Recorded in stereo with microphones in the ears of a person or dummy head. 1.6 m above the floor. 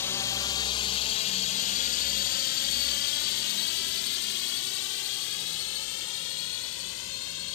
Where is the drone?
10° left (ahead or behind); by 7.5 s 75° left (ahead or behind).